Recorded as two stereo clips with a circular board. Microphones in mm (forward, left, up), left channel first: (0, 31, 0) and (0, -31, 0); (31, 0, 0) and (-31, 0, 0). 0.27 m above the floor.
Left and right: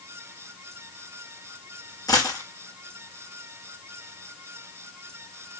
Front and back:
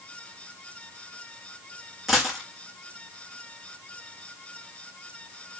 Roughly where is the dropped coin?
Left.